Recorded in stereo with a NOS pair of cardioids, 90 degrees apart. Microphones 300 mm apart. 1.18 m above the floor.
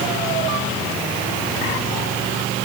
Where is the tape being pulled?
I don't hear tape being pulled.